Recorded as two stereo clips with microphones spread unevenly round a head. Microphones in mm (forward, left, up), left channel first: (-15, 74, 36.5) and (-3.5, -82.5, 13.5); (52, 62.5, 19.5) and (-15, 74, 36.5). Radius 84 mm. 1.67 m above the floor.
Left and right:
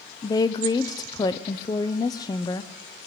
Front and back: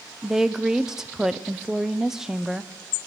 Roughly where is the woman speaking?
Behind left.